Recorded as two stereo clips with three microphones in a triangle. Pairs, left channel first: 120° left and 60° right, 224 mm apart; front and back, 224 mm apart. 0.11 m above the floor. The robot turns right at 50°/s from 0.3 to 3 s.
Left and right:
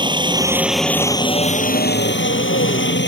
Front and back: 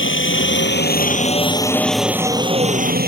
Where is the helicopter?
5° left; by 3.1 s 140° left.